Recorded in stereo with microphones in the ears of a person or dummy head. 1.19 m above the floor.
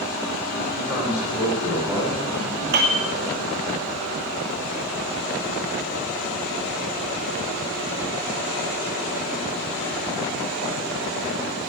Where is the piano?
45° right (ahead or behind), 2.5 m.